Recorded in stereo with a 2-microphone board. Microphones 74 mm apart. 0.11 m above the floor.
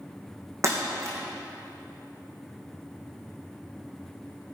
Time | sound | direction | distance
0.6 | breaking glass | 40° right (ahead or behind) | 4 m